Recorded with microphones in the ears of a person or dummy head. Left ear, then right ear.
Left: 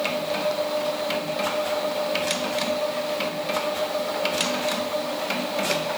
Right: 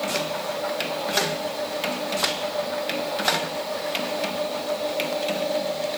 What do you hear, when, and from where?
Only background noise.